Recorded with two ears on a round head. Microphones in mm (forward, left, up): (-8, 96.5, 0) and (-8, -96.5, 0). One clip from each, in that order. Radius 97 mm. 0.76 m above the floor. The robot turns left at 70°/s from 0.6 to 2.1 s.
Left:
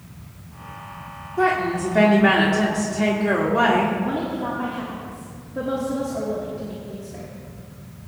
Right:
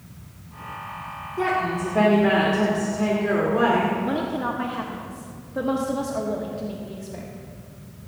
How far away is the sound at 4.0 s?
About 1.0 m.